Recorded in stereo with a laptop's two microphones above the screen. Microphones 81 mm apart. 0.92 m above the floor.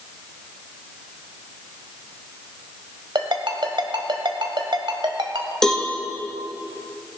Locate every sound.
3.1 s a ringtone: 70° right (ahead or behind), 1.7 m
5.6 s a cowbell: 5° left (ahead or behind), 1.7 m